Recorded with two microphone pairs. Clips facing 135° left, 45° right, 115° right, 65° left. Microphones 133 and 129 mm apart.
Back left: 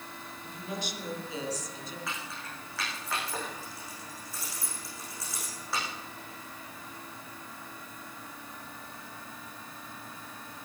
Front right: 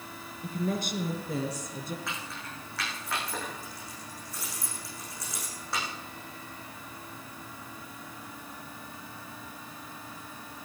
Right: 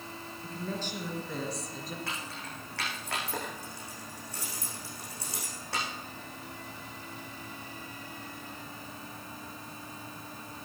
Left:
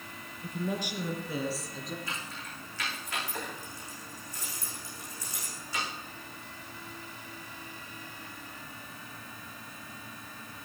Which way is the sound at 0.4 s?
10° right.